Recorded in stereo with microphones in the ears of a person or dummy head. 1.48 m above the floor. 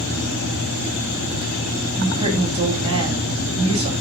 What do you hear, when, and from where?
2.0 s a woman speaking: 30° right (ahead or behind), 2.5 m